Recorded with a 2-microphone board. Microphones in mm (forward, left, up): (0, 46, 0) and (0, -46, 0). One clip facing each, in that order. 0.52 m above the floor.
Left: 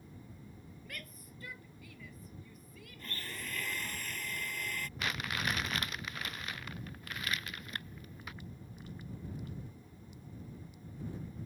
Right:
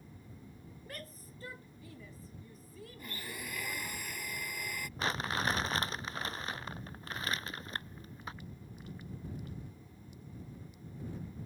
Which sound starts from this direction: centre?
A blender, at 3.0 s.